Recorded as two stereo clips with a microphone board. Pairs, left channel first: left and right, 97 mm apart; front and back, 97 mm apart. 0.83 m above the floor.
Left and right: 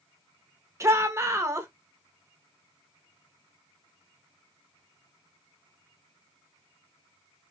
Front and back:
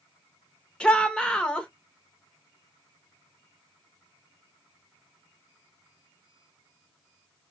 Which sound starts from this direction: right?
A shout, at 0.8 s.